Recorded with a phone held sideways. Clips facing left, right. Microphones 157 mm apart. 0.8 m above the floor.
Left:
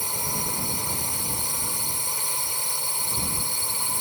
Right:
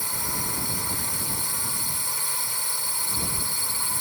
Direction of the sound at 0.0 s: 20° left (ahead or behind).